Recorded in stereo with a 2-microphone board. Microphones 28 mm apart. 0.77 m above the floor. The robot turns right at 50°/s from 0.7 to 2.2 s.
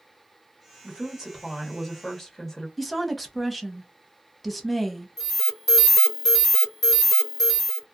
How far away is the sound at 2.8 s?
About 0.6 m.